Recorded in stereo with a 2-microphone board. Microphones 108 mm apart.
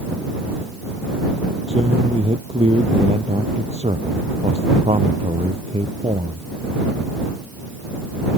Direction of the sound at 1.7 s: 80° right.